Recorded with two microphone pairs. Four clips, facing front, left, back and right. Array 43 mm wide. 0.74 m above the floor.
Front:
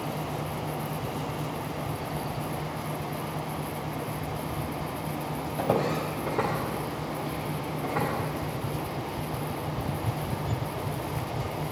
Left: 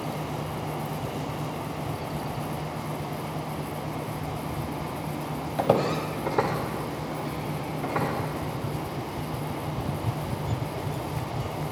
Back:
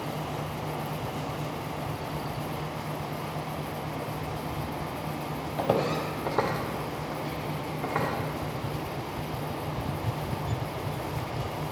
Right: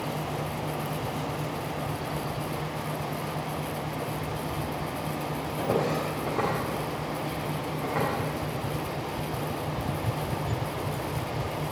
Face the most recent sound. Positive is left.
turn(degrees=180)